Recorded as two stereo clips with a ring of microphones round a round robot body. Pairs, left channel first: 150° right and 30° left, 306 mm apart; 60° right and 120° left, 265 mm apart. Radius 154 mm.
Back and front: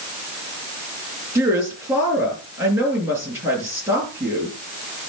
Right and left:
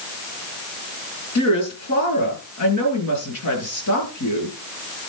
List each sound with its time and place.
1.4 s a woman speaking: 55° right, 7.5 m